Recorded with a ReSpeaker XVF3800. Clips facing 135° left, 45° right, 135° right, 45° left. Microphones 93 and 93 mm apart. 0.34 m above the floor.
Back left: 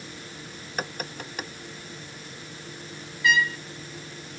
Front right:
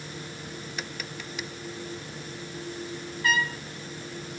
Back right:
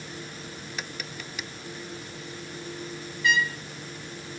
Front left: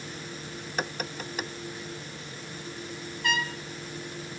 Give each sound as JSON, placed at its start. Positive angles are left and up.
{"t": 0.8, "sound": "tapping", "azimuth_deg": 90}
{"t": 3.2, "sound": "a trumpet", "azimuth_deg": 5}